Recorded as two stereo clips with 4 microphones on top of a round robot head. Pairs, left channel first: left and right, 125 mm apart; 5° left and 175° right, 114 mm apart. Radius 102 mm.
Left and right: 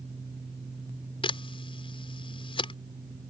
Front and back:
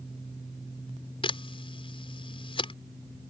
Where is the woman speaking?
I don't hear a woman speaking.